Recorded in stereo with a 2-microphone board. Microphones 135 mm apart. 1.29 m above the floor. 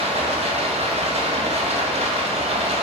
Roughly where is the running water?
Right.